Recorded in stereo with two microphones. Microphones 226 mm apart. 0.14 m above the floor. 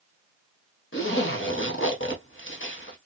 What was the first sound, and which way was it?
A zipper, 60° left (ahead or behind).